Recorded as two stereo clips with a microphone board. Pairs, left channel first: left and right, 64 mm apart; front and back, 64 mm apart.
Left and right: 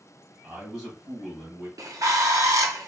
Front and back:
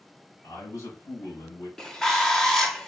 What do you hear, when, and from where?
0.4 s a man speaking: 10° right, 2.5 m
1.8 s a bird: 80° right, 0.6 m